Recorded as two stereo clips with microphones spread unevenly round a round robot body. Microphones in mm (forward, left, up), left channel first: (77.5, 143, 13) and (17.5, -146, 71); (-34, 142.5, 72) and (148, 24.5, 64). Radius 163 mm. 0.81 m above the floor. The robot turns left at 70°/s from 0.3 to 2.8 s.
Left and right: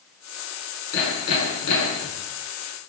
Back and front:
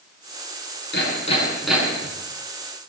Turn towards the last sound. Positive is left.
turn(degrees=-20)